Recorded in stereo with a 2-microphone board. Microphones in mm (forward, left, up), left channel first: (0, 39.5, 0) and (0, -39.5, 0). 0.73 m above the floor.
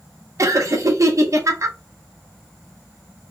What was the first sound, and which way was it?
Laughter, 45° right (ahead or behind).